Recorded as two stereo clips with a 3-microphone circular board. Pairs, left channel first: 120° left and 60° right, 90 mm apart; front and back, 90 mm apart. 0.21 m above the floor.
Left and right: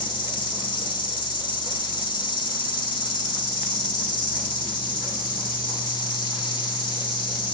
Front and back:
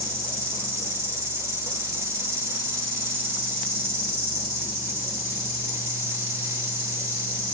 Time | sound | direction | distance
0.0 | an insect | 125° left | 1.1 m